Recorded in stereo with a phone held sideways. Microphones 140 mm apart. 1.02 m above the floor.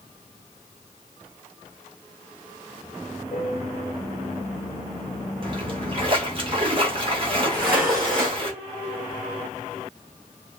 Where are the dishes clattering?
25° right (ahead or behind), 3.5 m.